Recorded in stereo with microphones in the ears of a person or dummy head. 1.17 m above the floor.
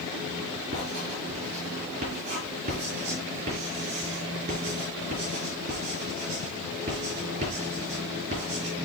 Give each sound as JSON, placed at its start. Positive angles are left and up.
{"t": 0.7, "sound": "writing", "side_deg": -40, "distance_m": 4.0}